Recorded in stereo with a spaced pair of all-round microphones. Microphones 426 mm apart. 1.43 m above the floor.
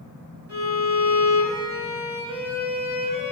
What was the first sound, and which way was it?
A violin, 80° right.